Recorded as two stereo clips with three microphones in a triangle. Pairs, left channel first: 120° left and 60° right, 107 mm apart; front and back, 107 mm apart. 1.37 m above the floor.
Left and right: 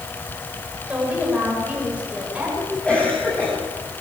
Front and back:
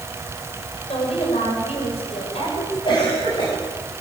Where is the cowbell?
I don't hear a cowbell.